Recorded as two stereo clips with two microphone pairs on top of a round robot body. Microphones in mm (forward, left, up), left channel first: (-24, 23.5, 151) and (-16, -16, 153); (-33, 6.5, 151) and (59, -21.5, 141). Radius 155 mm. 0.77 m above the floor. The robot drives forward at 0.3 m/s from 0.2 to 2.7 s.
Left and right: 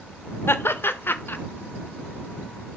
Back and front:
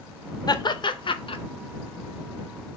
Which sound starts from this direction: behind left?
Laughter, at 0.5 s.